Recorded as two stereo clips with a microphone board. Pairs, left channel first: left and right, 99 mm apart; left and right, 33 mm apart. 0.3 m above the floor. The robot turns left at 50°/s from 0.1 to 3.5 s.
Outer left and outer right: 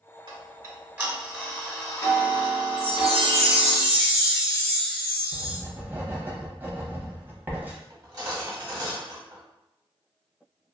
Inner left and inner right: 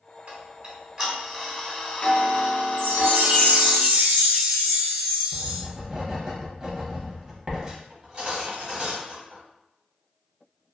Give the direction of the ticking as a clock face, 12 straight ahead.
4 o'clock.